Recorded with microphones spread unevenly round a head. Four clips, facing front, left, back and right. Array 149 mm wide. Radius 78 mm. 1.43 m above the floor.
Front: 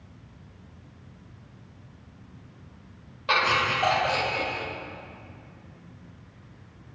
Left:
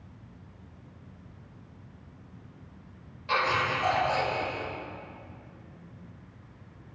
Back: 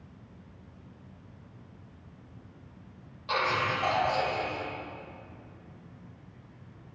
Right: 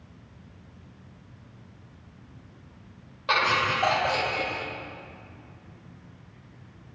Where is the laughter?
45° right, 2.5 m; by 4.7 s 60° right, 1.6 m.